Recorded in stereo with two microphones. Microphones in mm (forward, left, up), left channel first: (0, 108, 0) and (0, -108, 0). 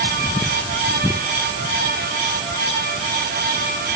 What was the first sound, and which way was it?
Only background noise.